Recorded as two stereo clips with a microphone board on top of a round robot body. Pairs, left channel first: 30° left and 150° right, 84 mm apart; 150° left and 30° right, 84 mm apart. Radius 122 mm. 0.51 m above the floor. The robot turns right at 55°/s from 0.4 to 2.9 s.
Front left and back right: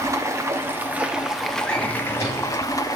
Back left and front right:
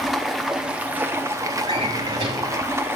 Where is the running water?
115° right, 1.0 m; by 3.0 s 20° left, 1.0 m.